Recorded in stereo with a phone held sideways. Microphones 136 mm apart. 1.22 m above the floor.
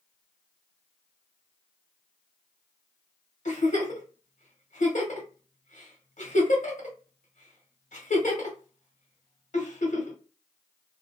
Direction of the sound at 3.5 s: 65° left (ahead or behind).